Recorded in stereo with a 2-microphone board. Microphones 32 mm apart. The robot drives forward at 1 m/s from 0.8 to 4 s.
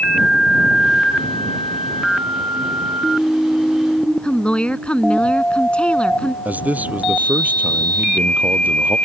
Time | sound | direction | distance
4.2 | a woman speaking | 35° left (ahead or behind) | ?
6.5 | a man speaking | 50° right (ahead or behind) | ?